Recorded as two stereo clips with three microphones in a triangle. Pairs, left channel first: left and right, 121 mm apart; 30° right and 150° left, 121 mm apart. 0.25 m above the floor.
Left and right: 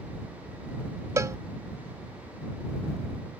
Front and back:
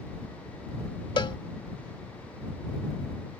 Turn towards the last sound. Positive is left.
turn(degrees=-40)